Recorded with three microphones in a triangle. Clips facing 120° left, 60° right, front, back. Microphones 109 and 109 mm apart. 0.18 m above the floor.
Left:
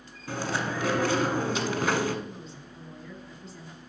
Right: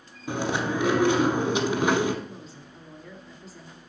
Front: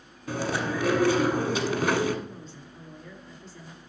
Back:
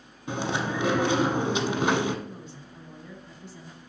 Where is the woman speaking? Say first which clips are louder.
Even, back 1 dB; 145° right, 1.0 m.